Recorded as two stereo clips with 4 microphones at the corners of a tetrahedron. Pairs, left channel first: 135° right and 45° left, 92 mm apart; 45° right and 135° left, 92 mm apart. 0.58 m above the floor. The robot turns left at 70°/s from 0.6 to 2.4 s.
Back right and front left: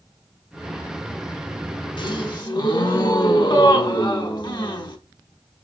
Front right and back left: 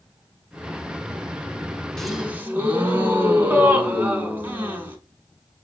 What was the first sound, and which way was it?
A gasp, 130° right.